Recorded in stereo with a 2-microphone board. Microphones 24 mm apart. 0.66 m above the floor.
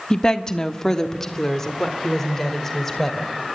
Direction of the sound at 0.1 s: 25° left (ahead or behind).